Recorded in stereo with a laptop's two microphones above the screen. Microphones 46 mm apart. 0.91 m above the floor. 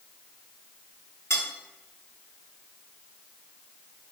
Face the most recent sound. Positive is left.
turn(degrees=75)  # may be behind; listen again after turning